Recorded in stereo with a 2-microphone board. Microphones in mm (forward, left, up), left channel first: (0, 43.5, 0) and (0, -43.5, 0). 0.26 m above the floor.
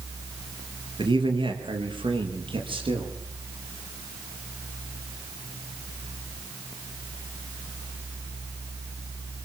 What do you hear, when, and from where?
1.0 s a man speaking: 70° right (ahead or behind), 4.5 m; by 3.1 s 80° right, 7 m